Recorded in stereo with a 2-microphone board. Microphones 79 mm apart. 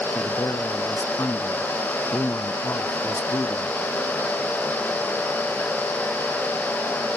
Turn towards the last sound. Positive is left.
turn(degrees=45)  # may be behind; listen again after turning